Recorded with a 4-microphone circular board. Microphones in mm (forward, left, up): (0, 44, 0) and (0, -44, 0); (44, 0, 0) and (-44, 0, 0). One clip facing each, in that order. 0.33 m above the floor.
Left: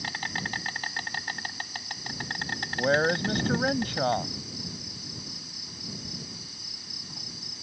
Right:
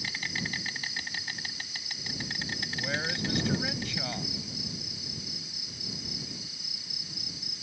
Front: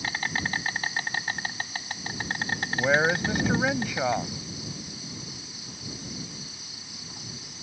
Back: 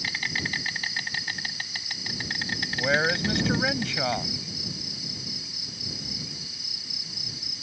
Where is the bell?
No bell in this recording.